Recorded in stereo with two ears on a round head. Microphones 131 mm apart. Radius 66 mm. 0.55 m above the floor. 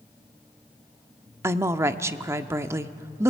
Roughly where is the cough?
I don't hear a cough.